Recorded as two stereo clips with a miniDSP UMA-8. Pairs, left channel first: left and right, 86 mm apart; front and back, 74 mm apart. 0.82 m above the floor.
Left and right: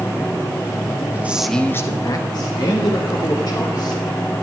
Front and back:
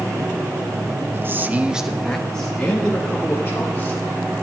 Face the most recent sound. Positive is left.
turn(degrees=65)